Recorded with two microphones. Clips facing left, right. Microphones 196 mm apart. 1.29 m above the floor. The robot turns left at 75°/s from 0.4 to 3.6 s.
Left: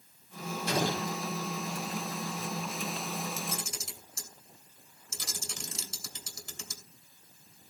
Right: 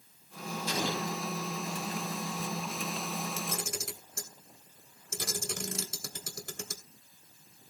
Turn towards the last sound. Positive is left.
turn(degrees=-60)  # may be behind; listen again after turning